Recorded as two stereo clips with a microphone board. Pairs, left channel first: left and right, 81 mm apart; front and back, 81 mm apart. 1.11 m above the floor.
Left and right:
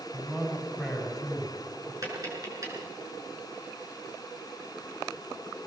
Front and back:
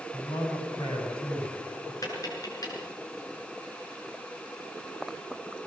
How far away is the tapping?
About 6 m.